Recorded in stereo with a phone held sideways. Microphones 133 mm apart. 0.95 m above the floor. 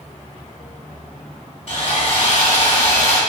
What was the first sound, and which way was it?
Sawing, 60° left (ahead or behind).